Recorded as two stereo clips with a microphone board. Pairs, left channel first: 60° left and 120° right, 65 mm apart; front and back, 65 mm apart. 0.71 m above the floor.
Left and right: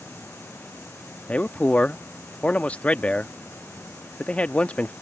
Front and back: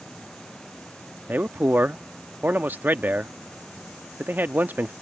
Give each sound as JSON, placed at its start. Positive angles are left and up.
{"t": 1.3, "sound": "a man speaking", "azimuth_deg": 125}